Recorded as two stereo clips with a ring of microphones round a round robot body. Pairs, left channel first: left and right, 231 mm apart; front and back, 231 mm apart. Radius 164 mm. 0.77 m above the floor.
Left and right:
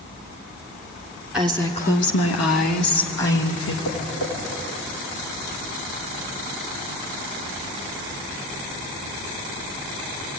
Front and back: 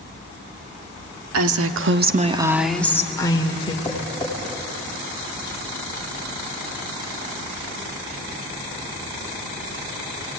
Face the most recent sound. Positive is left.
turn(degrees=80)